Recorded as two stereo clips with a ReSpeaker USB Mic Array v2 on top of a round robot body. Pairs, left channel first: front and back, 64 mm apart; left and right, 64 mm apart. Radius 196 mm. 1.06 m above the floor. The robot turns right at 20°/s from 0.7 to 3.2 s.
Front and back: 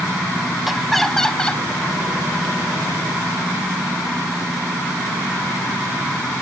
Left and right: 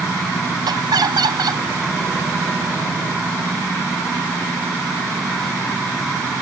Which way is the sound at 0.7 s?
95° right.